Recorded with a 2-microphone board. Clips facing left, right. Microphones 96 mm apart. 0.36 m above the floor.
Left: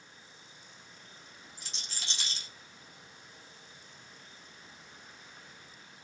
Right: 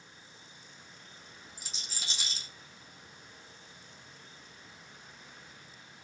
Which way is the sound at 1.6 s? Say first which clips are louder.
Left 1 dB; 10° right (ahead or behind).